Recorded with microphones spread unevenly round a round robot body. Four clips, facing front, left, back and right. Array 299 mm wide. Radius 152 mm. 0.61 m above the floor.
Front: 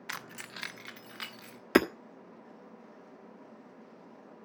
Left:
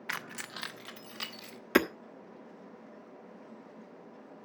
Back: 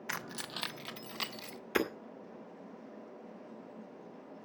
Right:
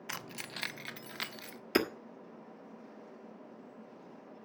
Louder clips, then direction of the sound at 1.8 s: Left 4 dB, front 8 dB; 15° left.